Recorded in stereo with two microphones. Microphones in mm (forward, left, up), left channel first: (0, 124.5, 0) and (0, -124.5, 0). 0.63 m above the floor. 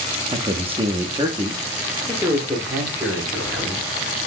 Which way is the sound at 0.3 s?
20° right (ahead or behind).